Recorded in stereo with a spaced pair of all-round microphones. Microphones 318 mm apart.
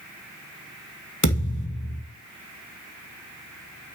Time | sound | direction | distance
1.2 | a thud | 65° left (ahead or behind) | 2.5 m